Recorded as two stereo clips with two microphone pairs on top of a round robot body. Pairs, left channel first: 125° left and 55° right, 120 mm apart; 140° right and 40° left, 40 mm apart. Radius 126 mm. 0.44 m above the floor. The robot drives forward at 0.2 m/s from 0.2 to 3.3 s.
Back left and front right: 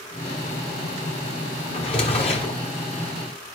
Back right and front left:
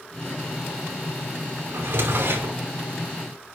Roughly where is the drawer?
Left.